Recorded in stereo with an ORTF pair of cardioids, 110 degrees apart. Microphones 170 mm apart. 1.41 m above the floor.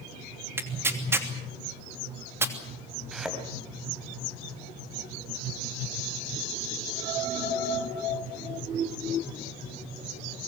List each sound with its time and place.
0.6 s tearing paper: 15° right, 3 m
3.1 s a thud: 5° right, 4 m